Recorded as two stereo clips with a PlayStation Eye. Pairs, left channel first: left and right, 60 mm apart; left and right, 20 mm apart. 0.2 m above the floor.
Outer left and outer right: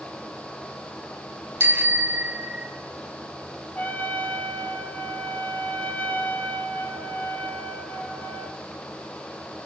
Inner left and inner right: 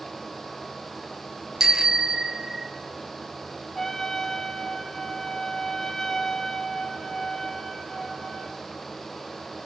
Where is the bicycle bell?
35° right (ahead or behind), 2.5 m.